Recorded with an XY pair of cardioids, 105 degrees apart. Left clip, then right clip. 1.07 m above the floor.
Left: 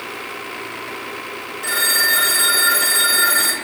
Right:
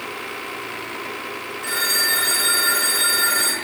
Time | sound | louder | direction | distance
1.6 | a phone ringing | left 3 dB | 20° left | 1.1 m